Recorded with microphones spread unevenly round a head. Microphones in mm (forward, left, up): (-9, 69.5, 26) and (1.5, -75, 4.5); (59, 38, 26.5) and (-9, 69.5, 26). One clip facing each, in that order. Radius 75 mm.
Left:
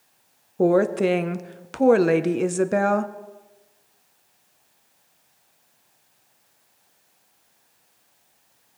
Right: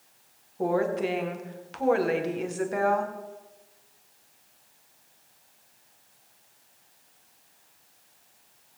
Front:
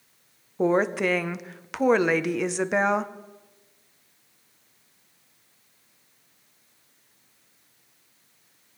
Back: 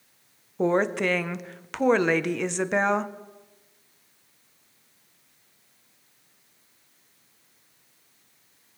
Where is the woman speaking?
60° left, 0.6 m.